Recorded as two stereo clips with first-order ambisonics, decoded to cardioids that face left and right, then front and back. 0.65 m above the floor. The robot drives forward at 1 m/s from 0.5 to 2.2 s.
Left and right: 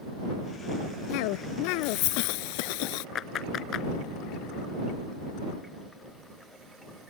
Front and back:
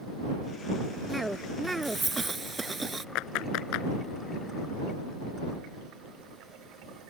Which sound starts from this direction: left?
A cough, at 1.1 s.